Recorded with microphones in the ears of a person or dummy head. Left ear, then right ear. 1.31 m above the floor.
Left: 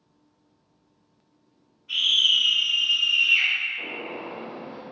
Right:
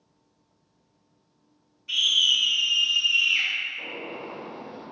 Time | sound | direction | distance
1.9 | a scream | 75° right (ahead or behind) | 1.8 m
3.8 | a gunshot | 15° left (ahead or behind) | 1.7 m